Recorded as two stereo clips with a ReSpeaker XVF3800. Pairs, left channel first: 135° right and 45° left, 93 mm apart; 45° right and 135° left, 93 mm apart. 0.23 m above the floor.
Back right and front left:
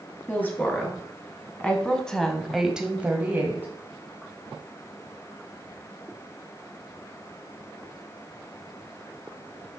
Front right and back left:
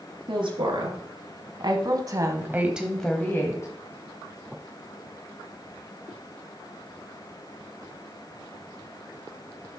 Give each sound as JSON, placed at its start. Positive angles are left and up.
{"t": 0.3, "sound": "a woman speaking", "azimuth_deg": 155, "distance_m": 3.5}